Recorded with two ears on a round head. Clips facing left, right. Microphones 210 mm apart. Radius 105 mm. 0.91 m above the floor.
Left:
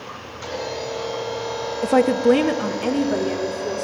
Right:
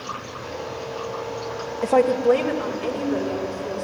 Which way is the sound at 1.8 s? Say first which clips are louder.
Left 1 dB; 5° left (ahead or behind).